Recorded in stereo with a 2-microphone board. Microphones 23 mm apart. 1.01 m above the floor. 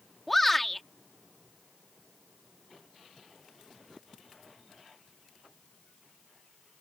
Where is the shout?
5° left (ahead or behind).